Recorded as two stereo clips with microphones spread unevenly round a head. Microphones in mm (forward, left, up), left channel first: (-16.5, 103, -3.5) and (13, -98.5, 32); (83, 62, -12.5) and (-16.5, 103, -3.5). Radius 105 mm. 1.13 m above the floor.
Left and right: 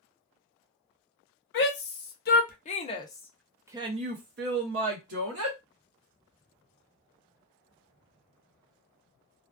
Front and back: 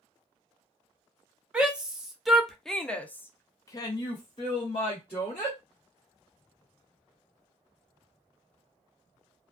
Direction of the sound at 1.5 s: 75° left.